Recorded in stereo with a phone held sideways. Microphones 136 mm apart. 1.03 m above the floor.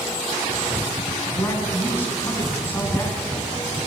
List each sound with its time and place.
1.3 s a man speaking: 15° left (ahead or behind), 8 m